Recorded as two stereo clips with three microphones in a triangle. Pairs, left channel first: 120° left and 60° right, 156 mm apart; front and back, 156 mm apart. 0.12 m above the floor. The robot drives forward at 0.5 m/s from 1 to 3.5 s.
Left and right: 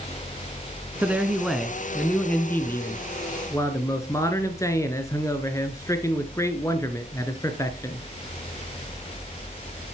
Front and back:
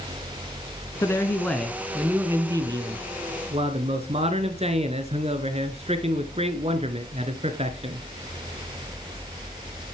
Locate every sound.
1.0 s a man speaking: 5° left, 1.1 m; by 8.0 s straight behind, 1.3 m